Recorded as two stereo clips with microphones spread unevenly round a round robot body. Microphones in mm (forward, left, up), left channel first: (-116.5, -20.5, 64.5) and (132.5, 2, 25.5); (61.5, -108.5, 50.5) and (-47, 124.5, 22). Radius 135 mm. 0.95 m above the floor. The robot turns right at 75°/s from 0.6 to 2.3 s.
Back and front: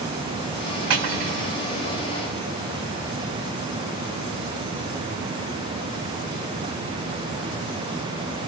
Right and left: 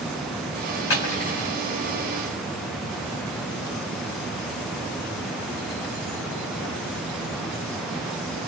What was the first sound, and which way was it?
Cutlery clinking, 25° right.